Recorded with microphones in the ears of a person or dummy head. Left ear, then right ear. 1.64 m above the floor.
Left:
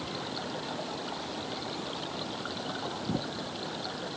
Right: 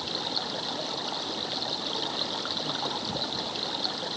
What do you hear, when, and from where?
0.0 s running water: 35° right (ahead or behind)